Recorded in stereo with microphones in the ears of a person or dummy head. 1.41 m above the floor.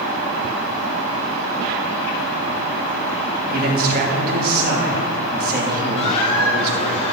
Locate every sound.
3.5 s a man speaking: 50° right (ahead or behind), 3 m
6.0 s a squeak: 35° left (ahead or behind), 2.5 m